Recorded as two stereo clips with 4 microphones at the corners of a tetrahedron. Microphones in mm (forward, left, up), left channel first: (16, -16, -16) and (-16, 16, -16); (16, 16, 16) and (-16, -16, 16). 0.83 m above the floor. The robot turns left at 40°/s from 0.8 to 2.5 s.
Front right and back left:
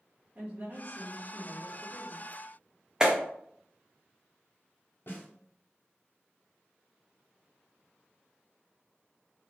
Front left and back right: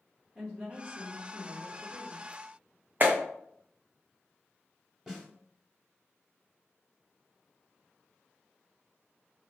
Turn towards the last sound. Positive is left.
turn(degrees=-60)